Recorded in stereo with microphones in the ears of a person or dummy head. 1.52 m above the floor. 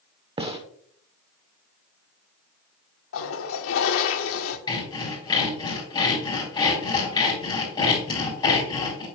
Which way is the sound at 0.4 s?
25° right (ahead or behind).